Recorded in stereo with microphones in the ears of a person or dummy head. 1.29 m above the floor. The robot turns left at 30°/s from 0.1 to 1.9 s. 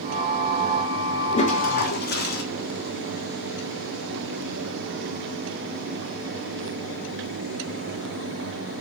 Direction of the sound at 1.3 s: 35° left (ahead or behind).